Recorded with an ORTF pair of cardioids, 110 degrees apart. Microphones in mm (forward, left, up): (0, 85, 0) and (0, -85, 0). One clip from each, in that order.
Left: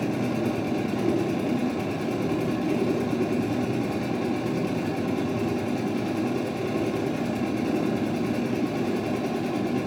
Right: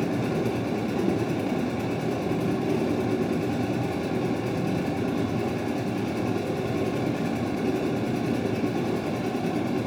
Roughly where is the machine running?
Ahead.